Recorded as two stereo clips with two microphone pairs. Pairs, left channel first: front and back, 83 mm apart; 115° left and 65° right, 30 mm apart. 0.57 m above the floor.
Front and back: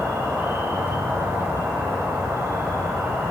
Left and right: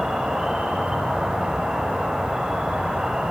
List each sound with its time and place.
0.0 s an insect: 115° right, 1.7 m